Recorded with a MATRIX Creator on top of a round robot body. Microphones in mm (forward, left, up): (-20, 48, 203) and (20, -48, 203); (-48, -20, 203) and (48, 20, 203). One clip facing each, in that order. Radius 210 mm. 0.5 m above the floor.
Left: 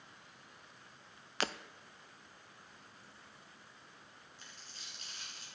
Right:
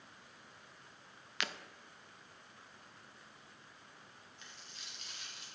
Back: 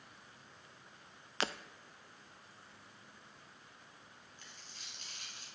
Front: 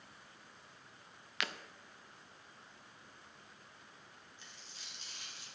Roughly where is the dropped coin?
Behind.